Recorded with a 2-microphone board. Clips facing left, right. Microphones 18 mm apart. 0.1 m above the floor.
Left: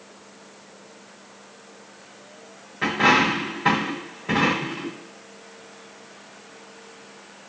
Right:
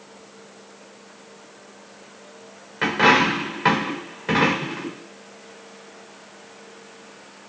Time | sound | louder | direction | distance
2.8 | a dropped coin | right 2 dB | 35° right (ahead or behind) | 1.2 m